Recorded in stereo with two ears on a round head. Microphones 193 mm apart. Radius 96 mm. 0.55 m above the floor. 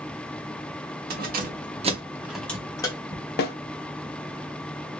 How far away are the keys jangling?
About 1.2 m.